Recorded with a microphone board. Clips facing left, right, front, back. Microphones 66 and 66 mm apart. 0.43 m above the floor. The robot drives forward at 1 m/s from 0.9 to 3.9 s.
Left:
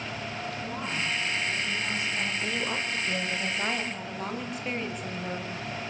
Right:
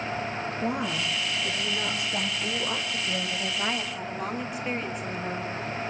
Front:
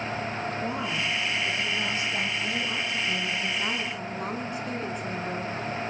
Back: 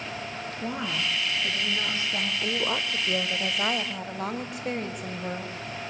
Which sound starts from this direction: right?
A woman speaking, at 0.6 s.